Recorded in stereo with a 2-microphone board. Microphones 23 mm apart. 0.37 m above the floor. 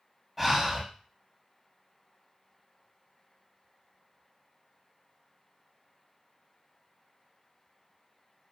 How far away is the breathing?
About 0.8 m.